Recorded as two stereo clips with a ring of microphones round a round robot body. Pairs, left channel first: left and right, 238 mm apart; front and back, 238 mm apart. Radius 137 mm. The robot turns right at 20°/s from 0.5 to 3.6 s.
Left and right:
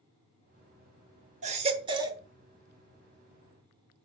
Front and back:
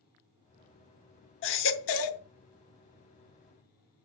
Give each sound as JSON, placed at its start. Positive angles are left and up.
{"t": 1.4, "sound": "a baby crying", "azimuth_deg": -30, "distance_m": 0.8}